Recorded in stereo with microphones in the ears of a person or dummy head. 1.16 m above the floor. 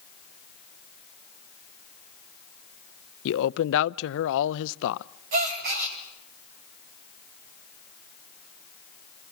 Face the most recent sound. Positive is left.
turn(degrees=-50)  # may be behind; listen again after turning